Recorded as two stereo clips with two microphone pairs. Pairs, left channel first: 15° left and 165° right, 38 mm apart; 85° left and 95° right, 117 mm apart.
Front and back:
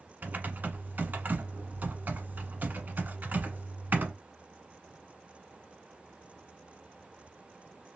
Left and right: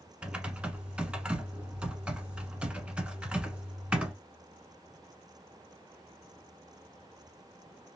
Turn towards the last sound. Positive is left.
turn(degrees=-175)